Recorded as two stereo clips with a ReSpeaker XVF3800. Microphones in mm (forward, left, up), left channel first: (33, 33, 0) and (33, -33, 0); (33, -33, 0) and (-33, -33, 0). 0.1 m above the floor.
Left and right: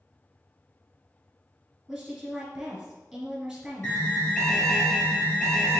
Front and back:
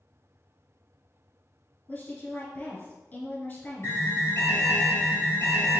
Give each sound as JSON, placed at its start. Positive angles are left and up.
{"t": 1.9, "sound": "a woman speaking", "azimuth_deg": -15, "distance_m": 1.2}
{"t": 3.8, "sound": "an alarm", "azimuth_deg": 35, "distance_m": 1.5}